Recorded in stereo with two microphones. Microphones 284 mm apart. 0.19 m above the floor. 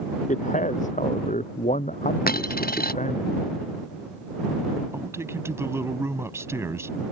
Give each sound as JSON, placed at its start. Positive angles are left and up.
{"t": 0.3, "sound": "a man speaking", "side_deg": 25}
{"t": 2.3, "sound": "a dropped coin", "side_deg": 30}
{"t": 4.9, "sound": "a man speaking", "side_deg": -10}